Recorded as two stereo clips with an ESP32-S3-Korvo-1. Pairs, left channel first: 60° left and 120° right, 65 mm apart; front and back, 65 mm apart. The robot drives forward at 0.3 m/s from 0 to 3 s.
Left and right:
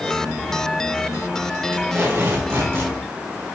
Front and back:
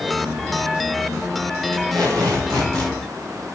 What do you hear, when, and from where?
1.7 s tape being pulled: 170° right, 3.5 m